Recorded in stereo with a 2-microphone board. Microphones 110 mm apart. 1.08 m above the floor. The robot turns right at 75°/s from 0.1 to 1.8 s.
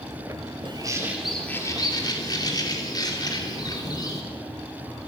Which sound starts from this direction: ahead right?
A bird, at 0.7 s.